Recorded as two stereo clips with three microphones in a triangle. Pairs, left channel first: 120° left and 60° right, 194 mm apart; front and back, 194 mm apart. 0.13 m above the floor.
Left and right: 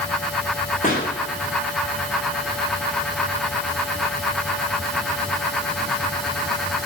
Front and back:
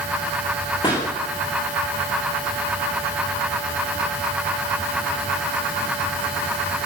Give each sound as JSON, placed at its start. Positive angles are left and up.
{"t": 0.8, "sound": "a pop", "azimuth_deg": 70, "distance_m": 9.0}